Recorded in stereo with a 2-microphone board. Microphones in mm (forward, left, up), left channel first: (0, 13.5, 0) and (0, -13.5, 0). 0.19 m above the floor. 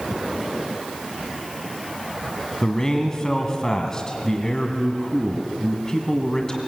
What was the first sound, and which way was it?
A man speaking, 25° left (ahead or behind).